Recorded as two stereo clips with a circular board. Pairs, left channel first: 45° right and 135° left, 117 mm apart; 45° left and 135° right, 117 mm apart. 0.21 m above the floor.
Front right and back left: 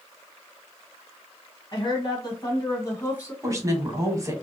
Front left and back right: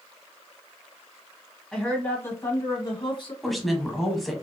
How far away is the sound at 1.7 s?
About 1.6 m.